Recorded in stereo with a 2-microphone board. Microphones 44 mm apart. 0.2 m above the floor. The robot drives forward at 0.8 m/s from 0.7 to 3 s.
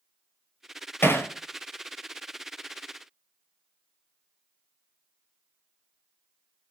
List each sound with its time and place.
1.0 s hammering: 60° left (ahead or behind), 3 m